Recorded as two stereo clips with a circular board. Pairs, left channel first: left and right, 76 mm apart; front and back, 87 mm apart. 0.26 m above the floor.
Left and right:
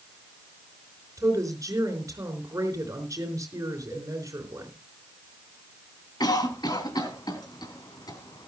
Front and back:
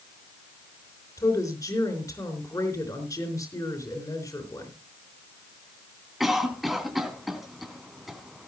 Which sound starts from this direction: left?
A cough, at 6.2 s.